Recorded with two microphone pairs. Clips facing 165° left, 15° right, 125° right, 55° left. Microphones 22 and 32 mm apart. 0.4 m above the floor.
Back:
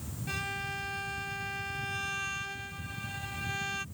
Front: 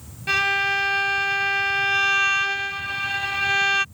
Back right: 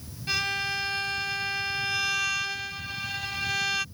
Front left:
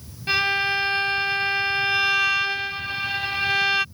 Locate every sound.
0.3 s a violin: 5° right